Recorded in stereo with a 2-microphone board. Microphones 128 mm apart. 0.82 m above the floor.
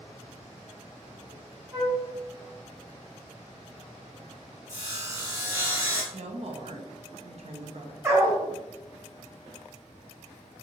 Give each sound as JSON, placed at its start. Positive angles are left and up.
{"t": 1.7, "sound": "a flute", "side_deg": -10, "distance_m": 1.4}
{"t": 4.7, "sound": "sawing", "side_deg": -20, "distance_m": 0.8}
{"t": 6.1, "sound": "a woman speaking", "side_deg": -55, "distance_m": 0.5}
{"t": 8.0, "sound": "a dog barking", "side_deg": -25, "distance_m": 1.0}